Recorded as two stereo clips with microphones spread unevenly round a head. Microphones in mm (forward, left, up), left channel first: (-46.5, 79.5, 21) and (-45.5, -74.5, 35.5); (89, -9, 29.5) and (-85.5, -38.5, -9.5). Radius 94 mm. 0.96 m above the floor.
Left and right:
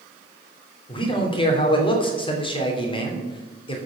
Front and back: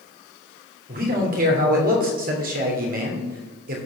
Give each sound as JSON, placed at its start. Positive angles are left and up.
{"t": 0.9, "sound": "a man speaking", "azimuth_deg": 145, "distance_m": 3.0}